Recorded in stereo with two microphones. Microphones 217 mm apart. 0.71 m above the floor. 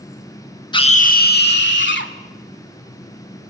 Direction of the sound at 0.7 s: 20° left (ahead or behind).